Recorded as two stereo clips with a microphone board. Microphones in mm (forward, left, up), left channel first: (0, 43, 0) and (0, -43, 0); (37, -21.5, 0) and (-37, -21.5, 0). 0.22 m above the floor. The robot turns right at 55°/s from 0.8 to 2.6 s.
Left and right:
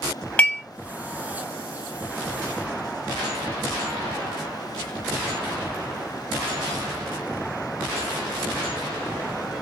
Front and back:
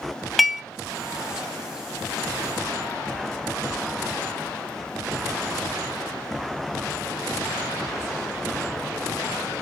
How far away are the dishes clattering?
About 0.8 m.